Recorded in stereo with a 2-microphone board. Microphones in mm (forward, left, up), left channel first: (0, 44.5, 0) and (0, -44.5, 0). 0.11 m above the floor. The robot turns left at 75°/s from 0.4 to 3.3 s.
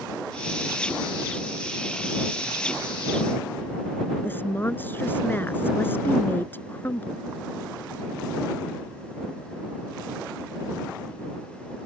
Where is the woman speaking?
25° left (ahead or behind).